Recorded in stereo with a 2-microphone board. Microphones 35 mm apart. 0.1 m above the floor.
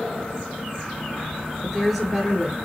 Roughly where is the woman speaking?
Centre.